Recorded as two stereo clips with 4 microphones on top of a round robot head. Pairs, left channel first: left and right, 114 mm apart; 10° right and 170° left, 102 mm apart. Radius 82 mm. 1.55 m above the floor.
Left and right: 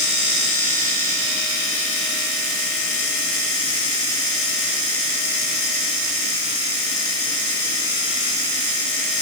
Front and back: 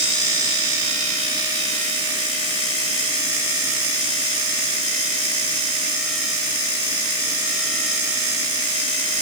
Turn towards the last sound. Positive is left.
No sound to turn to.